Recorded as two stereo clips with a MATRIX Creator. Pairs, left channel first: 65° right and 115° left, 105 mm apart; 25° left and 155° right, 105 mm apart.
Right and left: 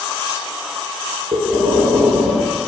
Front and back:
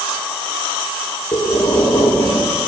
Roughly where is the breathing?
Left.